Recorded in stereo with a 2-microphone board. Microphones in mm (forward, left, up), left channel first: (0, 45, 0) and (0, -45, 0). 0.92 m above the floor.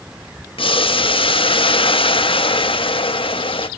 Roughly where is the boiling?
Left.